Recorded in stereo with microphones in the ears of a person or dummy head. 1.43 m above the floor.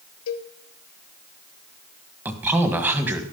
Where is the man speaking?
10° right (ahead or behind), 1.7 m.